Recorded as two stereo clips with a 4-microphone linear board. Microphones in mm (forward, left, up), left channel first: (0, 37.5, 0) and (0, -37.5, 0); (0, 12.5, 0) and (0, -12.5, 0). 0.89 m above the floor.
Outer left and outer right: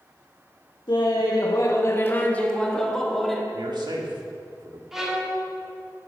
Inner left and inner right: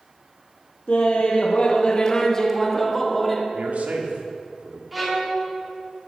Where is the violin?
5° right (ahead or behind), 2 m.